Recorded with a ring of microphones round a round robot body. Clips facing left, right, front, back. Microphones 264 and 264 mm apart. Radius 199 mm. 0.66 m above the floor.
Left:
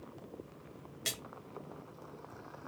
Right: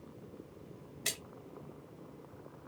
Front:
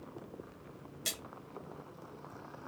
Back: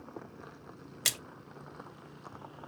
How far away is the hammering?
No hammering in this recording.